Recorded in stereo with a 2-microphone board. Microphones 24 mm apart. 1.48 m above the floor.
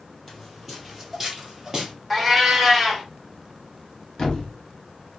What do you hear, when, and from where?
0.3 s footsteps: 5° left (ahead or behind), 2.0 m; by 1.9 s 25° right (ahead or behind), 1.6 m
2.1 s a cat meowing: 10° right (ahead or behind), 0.9 m
4.2 s a thud: 35° left (ahead or behind), 1.1 m